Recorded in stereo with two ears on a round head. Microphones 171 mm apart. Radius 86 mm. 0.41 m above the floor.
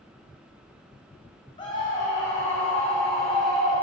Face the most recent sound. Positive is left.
turn(degrees=-5)  # may be behind; listen again after turning